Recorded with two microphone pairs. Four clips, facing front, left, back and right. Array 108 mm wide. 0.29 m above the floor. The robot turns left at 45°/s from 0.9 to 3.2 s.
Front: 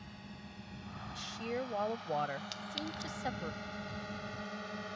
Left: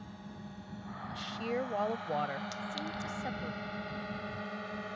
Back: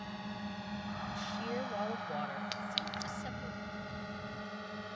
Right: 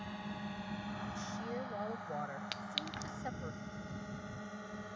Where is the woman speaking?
100° left; by 3.5 s 5° left.